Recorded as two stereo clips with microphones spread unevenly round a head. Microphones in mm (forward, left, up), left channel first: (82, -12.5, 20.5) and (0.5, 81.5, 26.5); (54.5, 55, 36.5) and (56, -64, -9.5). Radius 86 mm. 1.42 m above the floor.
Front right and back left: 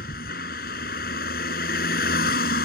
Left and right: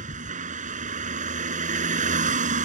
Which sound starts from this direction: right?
A vehicle, at 0.0 s.